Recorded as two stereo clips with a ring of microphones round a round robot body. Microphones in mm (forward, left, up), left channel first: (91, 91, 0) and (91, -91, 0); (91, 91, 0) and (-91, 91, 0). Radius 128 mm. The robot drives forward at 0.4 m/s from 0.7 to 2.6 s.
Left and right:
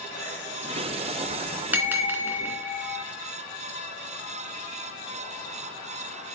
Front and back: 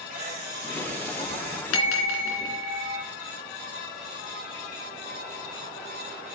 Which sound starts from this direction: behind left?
A camera shutter, at 0.1 s.